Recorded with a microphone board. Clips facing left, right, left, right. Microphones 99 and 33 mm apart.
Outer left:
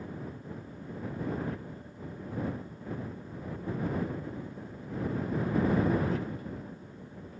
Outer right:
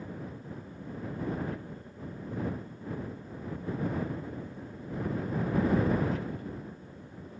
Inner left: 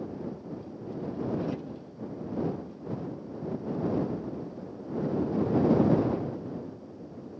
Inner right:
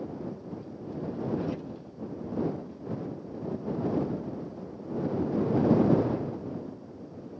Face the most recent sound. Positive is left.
No sound to turn to.